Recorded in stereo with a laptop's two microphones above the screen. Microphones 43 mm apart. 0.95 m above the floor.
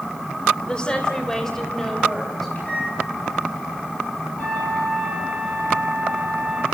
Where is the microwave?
40° left (ahead or behind), 7.5 m.